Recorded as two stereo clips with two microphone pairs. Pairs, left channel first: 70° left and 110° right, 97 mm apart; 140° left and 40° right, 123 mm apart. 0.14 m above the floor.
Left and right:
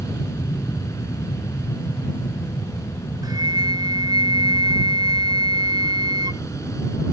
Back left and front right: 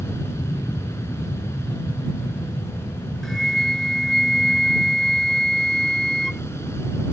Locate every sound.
0.0 s an aircraft: 95° left
3.2 s a flute: 130° right